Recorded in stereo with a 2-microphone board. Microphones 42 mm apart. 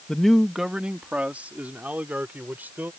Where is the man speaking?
15° left (ahead or behind); by 2.9 s 50° right (ahead or behind).